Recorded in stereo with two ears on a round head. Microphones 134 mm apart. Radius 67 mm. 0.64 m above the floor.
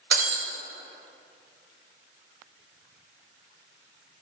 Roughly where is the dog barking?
No dog barking in this recording.